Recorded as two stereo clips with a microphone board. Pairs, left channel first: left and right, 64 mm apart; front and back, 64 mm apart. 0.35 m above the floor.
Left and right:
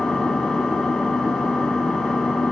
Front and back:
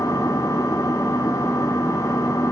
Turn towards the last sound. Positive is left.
turn(degrees=15)